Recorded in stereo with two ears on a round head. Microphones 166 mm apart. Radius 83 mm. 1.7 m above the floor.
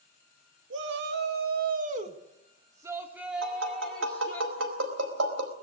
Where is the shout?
70° right (ahead or behind), 2.5 m; by 4.4 s 15° left (ahead or behind), 3 m.